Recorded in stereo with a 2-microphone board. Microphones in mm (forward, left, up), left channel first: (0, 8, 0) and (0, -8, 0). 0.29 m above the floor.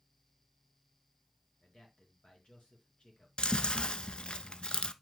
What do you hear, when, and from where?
1.6 s a man speaking: 70° left (ahead or behind), 4.5 m
3.4 s chewing: 65° left (ahead or behind), 0.6 m